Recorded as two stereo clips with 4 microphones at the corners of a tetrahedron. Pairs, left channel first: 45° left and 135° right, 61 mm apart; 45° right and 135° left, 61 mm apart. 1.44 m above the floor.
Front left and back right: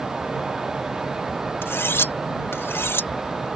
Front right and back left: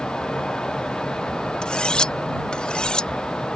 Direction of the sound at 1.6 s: 25° left.